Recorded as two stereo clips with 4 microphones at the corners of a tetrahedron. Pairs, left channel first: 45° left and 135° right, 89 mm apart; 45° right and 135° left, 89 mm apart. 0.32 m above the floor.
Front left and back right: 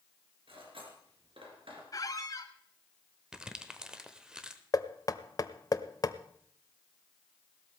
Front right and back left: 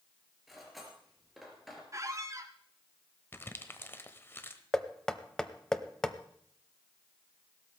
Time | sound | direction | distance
0.5 | cutlery clinking | 135° right | 3.5 m
1.9 | a squeak | 85° left | 1.1 m
3.3 | crumpling | 65° right | 1.1 m
4.7 | knocking | 35° left | 0.7 m